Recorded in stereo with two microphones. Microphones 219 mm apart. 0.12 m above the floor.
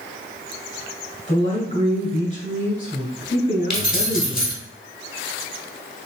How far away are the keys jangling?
About 1.4 m.